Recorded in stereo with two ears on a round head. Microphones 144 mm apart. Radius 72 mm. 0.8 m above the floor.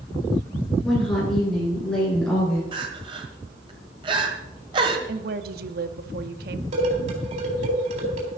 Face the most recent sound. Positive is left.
turn(degrees=-50)  # may be behind; listen again after turning